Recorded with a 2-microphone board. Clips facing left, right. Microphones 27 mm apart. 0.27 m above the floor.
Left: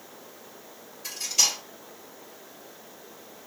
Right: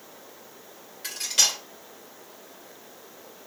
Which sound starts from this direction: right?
Cutlery clinking, at 1.0 s.